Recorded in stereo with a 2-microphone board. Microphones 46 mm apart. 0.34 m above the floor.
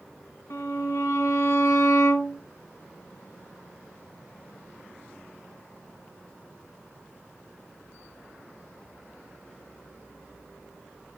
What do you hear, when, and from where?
0.5 s a violin: 70° left (ahead or behind), 3.5 m